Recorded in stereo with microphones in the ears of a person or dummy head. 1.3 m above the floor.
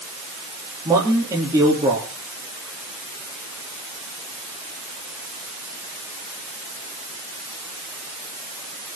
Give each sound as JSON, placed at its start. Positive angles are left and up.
{"t": 0.8, "sound": "a man speaking", "side_deg": -20, "distance_m": 3.0}